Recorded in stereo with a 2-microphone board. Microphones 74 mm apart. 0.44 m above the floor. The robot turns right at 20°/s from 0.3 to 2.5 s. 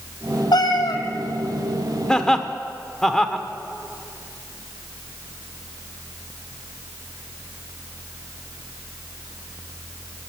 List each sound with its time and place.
0.5 s a cat meowing: 70° left (ahead or behind), 1.4 m; by 1.0 s 65° left (ahead or behind), 1.4 m
2.1 s laughter: 10° left (ahead or behind), 0.9 m; by 3.5 s 5° left (ahead or behind), 0.9 m